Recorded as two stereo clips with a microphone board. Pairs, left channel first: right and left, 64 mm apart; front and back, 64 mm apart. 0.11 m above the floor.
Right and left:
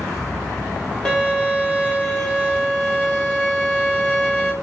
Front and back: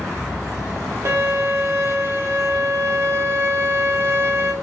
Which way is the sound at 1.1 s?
165° right.